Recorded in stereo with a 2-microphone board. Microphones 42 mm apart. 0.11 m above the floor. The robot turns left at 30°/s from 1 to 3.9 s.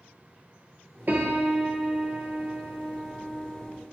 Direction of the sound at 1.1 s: 125° right.